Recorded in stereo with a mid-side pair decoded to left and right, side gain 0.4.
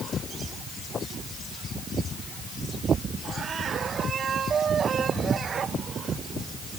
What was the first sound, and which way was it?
Only background noise.